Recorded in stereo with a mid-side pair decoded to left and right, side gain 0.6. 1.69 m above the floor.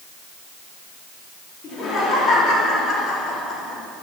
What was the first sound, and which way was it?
Laughter, 40° left.